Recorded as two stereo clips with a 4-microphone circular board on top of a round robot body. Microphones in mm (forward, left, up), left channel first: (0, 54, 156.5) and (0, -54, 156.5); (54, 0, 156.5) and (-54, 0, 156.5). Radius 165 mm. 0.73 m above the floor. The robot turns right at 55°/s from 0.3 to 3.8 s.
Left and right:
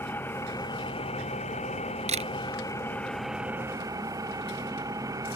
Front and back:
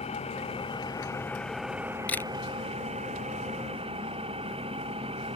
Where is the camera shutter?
80° right; by 2.3 s 65° right.